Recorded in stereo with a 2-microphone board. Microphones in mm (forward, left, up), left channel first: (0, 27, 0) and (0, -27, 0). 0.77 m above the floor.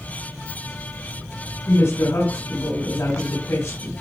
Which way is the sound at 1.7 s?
80° left.